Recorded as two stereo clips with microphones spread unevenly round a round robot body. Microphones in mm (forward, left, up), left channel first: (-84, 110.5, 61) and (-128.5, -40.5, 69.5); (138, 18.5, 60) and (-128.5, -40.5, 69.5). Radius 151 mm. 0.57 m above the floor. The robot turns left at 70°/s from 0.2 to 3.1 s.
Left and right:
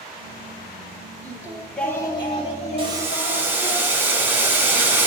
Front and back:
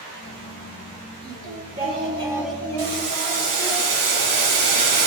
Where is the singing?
170° right, 1.6 m; by 3.8 s 60° left, 1.6 m.